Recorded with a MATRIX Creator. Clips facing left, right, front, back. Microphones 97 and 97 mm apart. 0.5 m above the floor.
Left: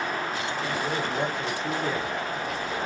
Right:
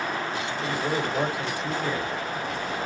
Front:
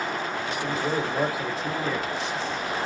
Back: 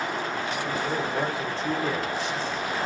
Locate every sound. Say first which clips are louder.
0.6 s a man speaking: right 3 dB, front 3 dB; 45° right, 1.0 m; by 2.9 s 130° left, 1.1 m